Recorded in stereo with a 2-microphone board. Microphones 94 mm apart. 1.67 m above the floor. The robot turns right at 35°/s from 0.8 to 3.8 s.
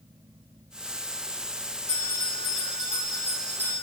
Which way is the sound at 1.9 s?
160° left.